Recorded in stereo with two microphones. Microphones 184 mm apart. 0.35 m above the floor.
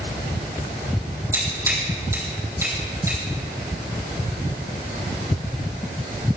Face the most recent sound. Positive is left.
turn(degrees=-15)  # may be behind; listen again after turning